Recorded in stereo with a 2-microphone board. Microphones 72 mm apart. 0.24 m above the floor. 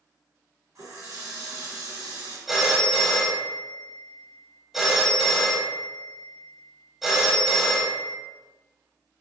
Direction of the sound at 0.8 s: 55° right (ahead or behind).